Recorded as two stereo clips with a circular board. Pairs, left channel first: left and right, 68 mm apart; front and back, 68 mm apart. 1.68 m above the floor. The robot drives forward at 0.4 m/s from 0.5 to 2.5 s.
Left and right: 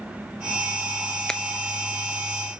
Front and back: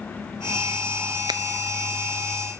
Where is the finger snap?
170° left, 0.8 m.